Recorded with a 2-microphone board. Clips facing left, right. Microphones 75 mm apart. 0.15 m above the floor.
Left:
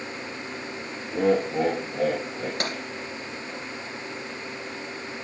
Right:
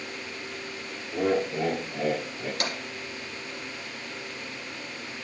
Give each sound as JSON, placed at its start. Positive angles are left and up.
{"t": 1.1, "sound": "laughter", "side_deg": 65, "distance_m": 5.0}
{"t": 2.6, "sound": "tapping", "side_deg": 35, "distance_m": 2.5}